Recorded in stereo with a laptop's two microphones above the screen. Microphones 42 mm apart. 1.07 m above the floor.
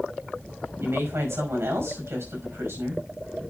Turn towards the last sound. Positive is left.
turn(degrees=-90)